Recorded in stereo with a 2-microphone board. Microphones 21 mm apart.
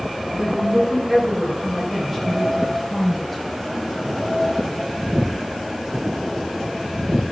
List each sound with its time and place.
0.3 s a woman speaking: 35° right (ahead or behind), 4 m; by 3.4 s 5° left (ahead or behind), 7 m